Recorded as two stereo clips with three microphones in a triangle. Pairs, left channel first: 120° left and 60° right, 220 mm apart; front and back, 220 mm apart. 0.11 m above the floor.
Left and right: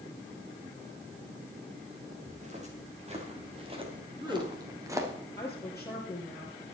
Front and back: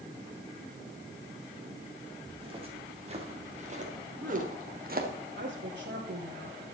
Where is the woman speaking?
165° right, 2.5 m.